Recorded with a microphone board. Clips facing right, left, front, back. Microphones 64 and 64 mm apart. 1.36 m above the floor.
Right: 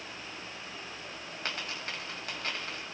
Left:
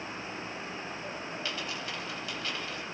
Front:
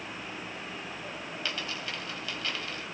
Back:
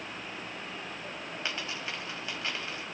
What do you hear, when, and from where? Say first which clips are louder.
1.4 s a dropped coin: right 2 dB, even; 120° right, 1.9 m